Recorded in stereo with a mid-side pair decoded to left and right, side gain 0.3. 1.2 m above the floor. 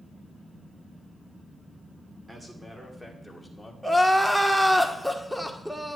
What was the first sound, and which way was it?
A man speaking, 25° right.